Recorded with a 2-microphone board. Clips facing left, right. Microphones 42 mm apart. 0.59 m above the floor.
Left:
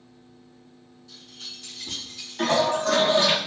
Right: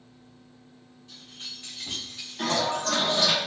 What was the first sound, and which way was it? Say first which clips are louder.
Keys jangling: even; 35° right (ahead or behind).